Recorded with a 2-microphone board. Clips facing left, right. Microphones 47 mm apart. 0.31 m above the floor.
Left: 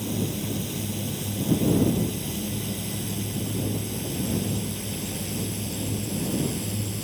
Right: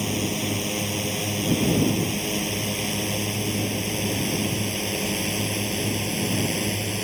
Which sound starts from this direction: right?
A drone, at 0.0 s.